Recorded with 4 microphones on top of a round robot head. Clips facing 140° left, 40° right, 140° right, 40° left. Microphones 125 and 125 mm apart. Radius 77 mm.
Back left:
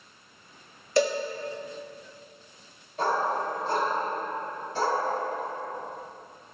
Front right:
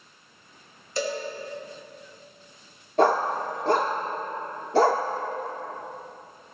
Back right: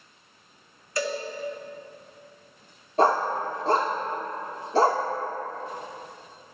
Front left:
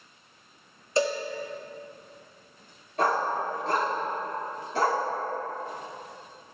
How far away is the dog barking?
About 0.7 m.